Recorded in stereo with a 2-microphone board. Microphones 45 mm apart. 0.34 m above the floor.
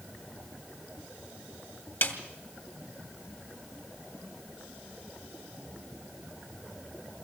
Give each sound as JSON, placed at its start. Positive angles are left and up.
{"t": 2.0, "sound": "a snare drum", "side_deg": 55, "distance_m": 2.0}